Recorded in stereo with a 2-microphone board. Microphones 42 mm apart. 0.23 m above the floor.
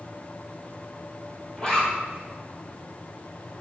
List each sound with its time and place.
1.6 s a zipper: 20° left (ahead or behind), 3 m